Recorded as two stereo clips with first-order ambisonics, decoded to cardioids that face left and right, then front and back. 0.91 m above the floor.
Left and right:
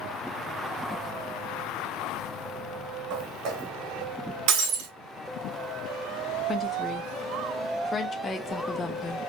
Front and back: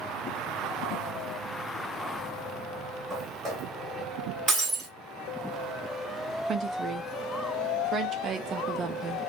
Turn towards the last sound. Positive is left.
turn(degrees=150)